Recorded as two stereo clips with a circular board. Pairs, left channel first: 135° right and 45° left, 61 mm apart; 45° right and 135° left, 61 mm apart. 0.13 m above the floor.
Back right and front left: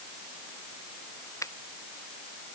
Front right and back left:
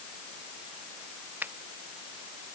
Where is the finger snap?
165° right.